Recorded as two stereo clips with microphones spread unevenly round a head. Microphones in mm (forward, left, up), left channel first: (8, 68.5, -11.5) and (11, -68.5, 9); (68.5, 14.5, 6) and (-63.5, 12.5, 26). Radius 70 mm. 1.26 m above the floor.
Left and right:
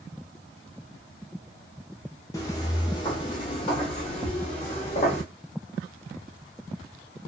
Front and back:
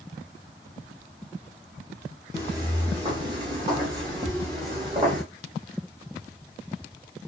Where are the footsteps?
155° left, 1.5 m; by 5.2 s 135° left, 2.5 m.